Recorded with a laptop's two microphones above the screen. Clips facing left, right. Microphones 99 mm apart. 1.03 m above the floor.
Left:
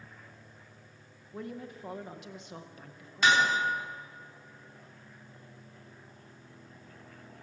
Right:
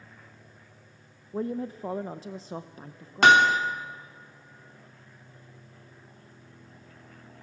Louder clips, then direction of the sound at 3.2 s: Right 7 dB; 65° right (ahead or behind).